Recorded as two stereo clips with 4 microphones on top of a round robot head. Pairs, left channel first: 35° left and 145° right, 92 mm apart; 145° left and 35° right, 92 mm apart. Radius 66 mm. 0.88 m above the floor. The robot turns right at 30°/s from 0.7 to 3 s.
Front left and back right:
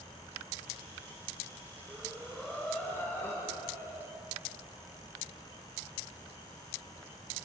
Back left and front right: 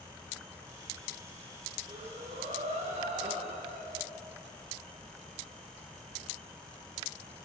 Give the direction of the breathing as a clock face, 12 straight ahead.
2 o'clock.